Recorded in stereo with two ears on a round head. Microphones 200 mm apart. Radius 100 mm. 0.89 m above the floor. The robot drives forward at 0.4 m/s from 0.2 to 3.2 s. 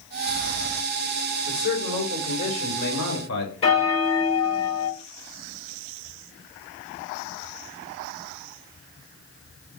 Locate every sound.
1.5 s a man speaking: 60° left (ahead or behind), 3 m; by 3.5 s 70° left (ahead or behind), 3 m
3.6 s a bell: 25° left (ahead or behind), 1.3 m